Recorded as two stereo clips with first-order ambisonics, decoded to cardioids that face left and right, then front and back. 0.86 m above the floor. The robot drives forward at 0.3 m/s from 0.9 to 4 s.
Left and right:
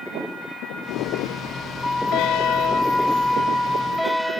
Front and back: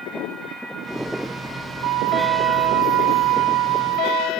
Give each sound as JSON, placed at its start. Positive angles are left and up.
{"t": 1.8, "sound": "a flute", "azimuth_deg": 165}